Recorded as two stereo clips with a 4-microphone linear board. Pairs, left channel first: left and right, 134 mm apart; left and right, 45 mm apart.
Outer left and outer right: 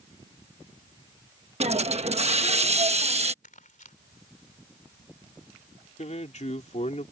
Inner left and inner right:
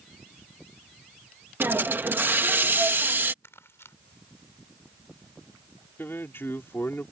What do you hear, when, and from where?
1.6 s a hiss: 50° right (ahead or behind)
3.4 s crumpling: 75° left (ahead or behind)
6.0 s a man speaking: 60° left (ahead or behind)